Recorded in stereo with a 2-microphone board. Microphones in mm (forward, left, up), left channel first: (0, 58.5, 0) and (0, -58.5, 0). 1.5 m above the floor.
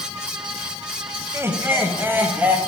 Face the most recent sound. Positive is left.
turn(degrees=-15)  # may be behind; listen again after turning